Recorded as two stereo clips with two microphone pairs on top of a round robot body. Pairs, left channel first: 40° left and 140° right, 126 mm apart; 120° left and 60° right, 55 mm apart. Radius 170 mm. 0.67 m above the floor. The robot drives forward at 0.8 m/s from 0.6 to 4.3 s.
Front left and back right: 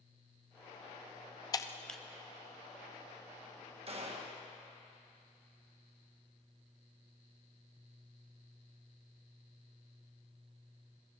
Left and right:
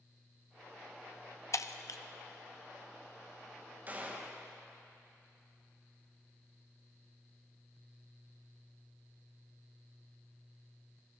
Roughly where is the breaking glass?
Left.